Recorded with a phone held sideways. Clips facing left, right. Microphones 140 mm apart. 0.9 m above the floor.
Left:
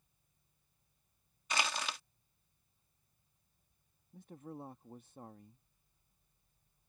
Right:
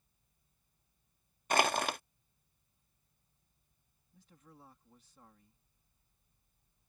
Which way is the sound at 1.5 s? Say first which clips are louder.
Right 8 dB; 55° right (ahead or behind).